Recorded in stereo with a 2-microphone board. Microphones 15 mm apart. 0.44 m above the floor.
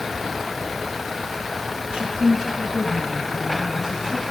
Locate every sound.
1.9 s a woman speaking: 60° right (ahead or behind), 2.5 m; by 4.2 s 25° right (ahead or behind), 4.5 m